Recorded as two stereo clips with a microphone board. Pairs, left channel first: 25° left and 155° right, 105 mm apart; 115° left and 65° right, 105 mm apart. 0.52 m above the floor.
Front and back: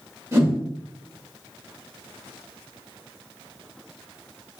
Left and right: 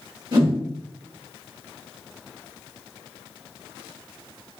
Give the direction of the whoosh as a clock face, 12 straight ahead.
3 o'clock.